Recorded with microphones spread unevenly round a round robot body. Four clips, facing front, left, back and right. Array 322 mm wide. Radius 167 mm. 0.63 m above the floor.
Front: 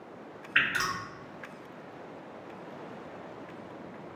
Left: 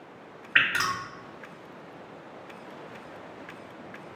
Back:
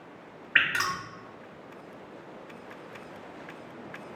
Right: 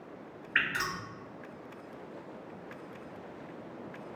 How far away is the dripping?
About 1.1 m.